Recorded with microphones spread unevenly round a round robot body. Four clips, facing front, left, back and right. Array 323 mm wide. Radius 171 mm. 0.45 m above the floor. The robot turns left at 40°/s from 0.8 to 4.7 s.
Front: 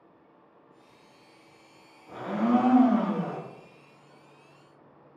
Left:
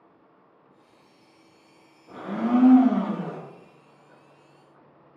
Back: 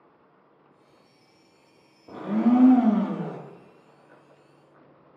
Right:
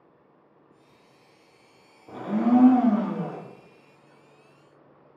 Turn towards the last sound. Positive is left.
turn(degrees=105)